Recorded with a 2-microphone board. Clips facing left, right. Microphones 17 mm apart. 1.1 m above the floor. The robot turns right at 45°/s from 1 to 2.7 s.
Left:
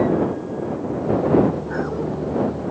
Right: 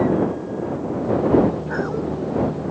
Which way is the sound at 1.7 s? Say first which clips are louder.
Even; 20° right (ahead or behind).